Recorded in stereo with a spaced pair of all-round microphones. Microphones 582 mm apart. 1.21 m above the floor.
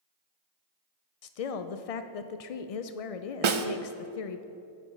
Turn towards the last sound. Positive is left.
turn(degrees=-55)  # may be behind; listen again after turning